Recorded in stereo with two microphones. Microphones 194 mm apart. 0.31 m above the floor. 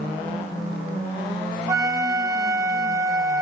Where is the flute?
15° right (ahead or behind), 0.7 m.